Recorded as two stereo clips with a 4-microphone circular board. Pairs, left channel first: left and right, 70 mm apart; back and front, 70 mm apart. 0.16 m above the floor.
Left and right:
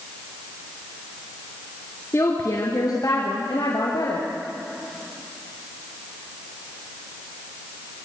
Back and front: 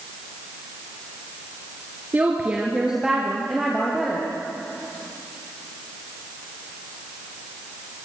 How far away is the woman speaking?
About 2 m.